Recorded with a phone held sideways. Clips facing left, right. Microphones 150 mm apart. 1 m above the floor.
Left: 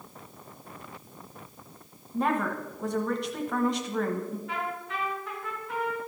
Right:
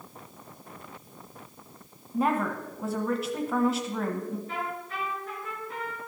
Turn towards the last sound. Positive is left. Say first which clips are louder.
# left 1 dB
turn(degrees=80)